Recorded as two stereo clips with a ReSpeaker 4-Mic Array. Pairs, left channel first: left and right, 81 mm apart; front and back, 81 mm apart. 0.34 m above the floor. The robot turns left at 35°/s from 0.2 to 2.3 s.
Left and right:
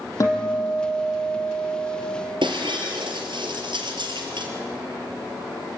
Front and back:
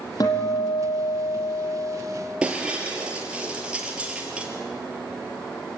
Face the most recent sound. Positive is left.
turn(degrees=-100)